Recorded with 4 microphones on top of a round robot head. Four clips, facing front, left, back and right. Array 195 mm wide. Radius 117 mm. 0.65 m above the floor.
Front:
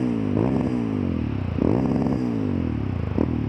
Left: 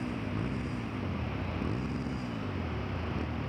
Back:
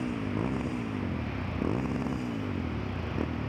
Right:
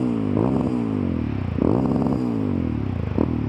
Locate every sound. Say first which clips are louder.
0.0 s a motorcycle: right 15 dB, front 9 dB; 55° right